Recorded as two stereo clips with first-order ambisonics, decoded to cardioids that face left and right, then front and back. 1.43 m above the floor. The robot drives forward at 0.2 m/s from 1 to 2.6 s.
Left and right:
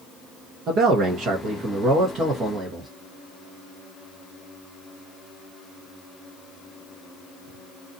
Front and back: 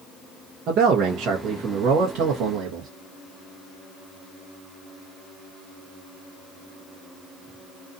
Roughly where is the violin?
I don't hear a violin.